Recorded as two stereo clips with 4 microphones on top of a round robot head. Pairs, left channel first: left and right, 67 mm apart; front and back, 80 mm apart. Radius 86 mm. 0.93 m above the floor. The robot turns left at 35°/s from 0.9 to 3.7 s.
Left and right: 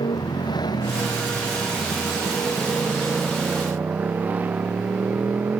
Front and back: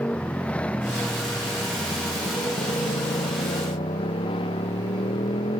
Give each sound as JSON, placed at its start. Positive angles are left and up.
{"t": 0.0, "sound": "a motorcycle", "azimuth_deg": 75}